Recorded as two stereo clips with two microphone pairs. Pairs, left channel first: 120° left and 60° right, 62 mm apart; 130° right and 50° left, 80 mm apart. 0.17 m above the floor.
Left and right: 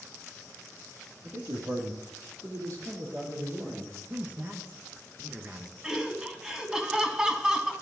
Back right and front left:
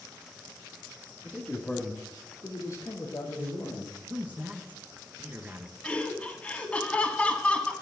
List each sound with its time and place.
1.2 s a man speaking: 45° right, 3 m; by 3.9 s 100° right, 5 m
4.1 s a man speaking: 15° right, 1.9 m
5.8 s laughter: 105° right, 1.6 m